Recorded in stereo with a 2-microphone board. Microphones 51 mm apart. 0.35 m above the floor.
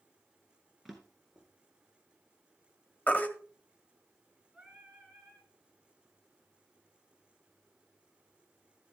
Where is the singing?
10° right (ahead or behind), 4.5 m.